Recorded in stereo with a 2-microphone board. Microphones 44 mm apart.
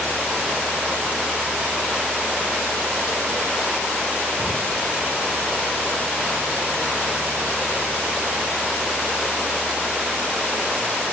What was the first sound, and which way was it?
A cupboard door, 35° left (ahead or behind).